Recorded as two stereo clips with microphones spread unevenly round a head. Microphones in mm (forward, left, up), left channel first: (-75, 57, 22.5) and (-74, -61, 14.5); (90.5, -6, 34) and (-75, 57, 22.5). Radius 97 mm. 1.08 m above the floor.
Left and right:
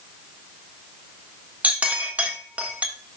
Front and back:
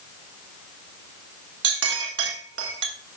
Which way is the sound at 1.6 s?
170° right.